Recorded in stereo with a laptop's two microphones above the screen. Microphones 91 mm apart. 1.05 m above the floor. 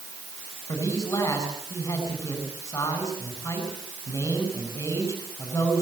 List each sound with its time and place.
0.7 s a man speaking: 35° left (ahead or behind), 7.5 m